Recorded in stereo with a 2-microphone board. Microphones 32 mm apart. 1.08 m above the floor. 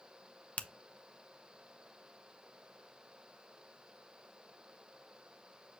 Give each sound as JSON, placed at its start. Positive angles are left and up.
{"t": 0.6, "sound": "a finger snap", "side_deg": 60, "distance_m": 0.5}